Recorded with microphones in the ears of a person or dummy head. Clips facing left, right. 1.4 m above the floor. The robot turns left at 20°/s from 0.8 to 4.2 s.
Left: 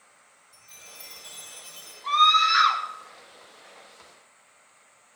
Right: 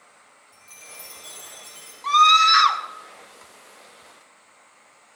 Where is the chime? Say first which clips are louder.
Right 4 dB; 45° right (ahead or behind), 5.5 m; by 1.9 s 20° right (ahead or behind), 5.5 m.